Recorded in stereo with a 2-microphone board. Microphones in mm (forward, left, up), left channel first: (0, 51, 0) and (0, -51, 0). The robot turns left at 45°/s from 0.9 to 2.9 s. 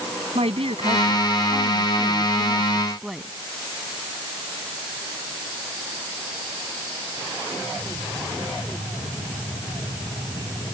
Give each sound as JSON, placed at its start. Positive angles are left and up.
{"t": 0.3, "sound": "a woman speaking", "azimuth_deg": -85}